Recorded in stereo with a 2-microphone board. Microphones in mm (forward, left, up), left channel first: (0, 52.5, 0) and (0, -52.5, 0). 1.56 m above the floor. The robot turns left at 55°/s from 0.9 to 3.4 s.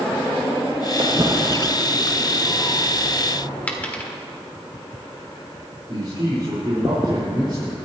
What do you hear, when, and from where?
1.0 s footsteps: 50° right (ahead or behind), 2.5 m; by 3.5 s 30° left (ahead or behind), 3.5 m
3.7 s a dropped coin: 15° left (ahead or behind), 1.5 m
5.9 s a man speaking: 55° right (ahead or behind), 4.5 m